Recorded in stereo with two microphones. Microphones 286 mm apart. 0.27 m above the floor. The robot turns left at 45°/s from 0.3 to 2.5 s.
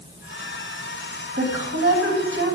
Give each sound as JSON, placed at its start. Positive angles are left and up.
{"t": 1.4, "sound": "a woman speaking", "azimuth_deg": -60, "distance_m": 1.5}